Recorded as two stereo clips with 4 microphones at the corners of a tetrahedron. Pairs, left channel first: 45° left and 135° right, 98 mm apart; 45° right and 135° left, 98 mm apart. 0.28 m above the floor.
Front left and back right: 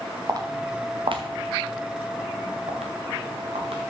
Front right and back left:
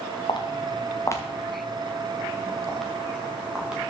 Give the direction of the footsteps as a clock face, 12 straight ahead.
3 o'clock.